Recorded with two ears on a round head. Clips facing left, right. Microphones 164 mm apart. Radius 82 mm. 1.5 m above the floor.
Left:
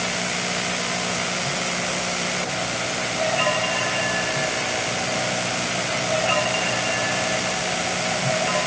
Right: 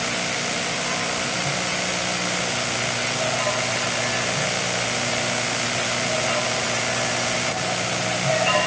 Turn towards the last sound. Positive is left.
No sound to turn to.